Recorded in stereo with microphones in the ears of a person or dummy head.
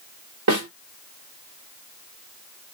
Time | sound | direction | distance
0.5 | a snare drum | 85° right | 3.5 m